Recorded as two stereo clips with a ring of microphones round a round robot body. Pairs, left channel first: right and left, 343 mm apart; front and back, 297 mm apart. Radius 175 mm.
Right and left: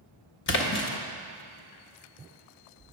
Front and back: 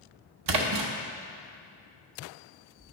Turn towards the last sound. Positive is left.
turn(degrees=-150)